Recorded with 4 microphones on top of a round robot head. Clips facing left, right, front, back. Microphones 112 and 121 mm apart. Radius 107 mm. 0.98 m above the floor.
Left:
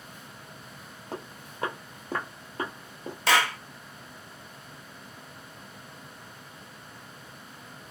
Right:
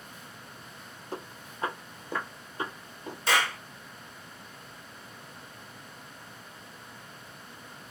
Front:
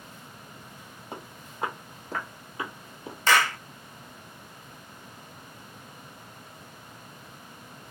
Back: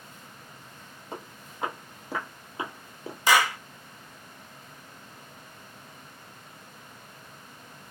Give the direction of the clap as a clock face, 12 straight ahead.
9 o'clock.